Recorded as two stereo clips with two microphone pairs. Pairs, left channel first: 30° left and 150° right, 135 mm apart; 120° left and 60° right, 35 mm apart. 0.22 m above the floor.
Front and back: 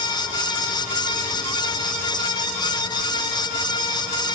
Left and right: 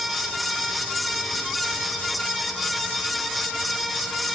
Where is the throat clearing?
No throat clearing in this recording.